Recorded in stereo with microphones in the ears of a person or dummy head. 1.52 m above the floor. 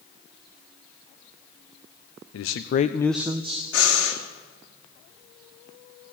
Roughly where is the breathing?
Left.